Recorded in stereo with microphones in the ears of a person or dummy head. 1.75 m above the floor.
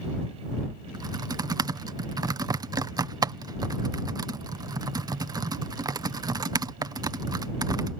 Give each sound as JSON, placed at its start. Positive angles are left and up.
{"t": 0.9, "sound": "typing on a keyboard", "side_deg": -15}